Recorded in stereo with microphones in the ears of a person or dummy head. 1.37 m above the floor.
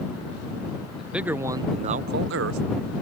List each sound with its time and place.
1.0 s a man speaking: 5° right (ahead or behind); by 2.6 s 80° right